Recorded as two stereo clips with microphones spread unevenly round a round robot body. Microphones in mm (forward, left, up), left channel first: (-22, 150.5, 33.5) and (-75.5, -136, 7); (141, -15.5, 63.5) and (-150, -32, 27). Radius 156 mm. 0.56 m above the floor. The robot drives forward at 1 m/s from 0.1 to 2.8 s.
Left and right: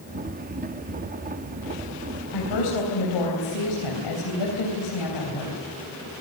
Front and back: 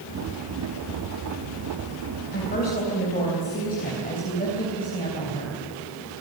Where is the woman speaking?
65° left, 4 m; by 5.6 s 70° left, 4 m.